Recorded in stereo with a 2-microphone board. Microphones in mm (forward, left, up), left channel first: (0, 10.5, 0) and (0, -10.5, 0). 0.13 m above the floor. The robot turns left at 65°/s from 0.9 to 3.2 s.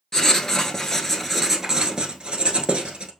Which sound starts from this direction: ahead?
Writing, at 0.1 s.